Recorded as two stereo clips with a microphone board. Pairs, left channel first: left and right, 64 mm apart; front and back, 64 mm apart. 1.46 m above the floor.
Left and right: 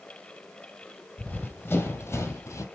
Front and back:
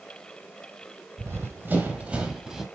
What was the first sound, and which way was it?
Running footsteps, 145° left.